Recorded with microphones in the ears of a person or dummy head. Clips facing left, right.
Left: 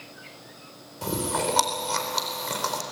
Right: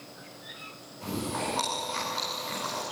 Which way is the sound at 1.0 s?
70° left (ahead or behind).